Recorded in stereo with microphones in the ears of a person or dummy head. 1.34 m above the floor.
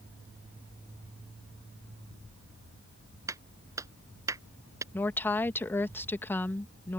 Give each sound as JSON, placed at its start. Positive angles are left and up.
{"t": 3.3, "sound": "a clap", "side_deg": -15}
{"t": 4.9, "sound": "a woman speaking", "side_deg": 15}